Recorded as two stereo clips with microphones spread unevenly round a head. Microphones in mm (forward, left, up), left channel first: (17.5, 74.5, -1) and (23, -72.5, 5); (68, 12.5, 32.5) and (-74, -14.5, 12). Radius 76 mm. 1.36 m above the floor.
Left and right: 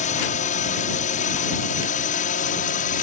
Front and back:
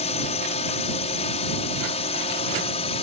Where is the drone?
55° left; by 3.0 s 60° left.